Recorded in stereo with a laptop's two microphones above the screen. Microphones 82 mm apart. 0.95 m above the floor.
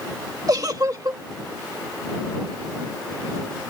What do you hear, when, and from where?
0.5 s a giggle: 45° right (ahead or behind)